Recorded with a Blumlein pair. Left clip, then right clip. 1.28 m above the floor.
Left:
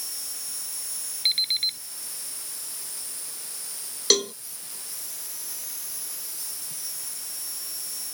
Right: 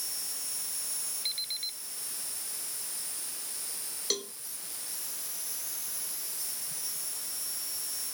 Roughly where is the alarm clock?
Ahead left.